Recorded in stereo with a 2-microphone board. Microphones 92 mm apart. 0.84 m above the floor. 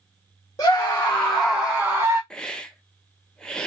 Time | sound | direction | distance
0.6 | a scream | 40° left (ahead or behind) | 1.1 m
2.3 | a hiss | 10° left (ahead or behind) | 0.6 m